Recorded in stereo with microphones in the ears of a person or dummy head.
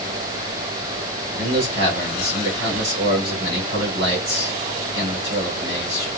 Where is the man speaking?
75° right (ahead or behind), 5.5 m.